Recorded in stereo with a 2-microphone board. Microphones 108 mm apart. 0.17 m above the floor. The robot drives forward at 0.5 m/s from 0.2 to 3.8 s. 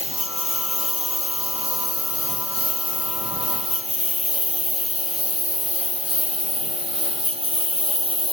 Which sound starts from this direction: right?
A lawn mower, at 0.0 s.